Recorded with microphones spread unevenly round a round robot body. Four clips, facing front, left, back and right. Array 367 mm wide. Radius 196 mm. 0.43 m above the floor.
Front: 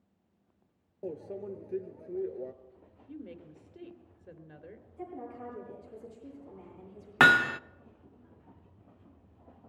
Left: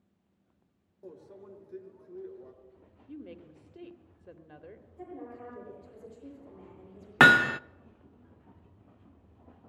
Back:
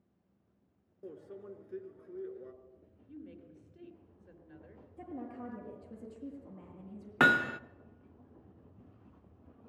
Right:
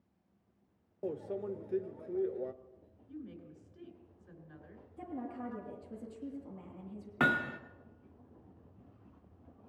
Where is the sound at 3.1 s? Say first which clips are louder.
Left 2 dB, front 4 dB; 35° left, 2.5 m.